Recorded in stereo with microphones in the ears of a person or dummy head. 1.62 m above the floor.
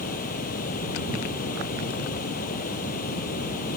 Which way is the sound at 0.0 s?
50° left (ahead or behind).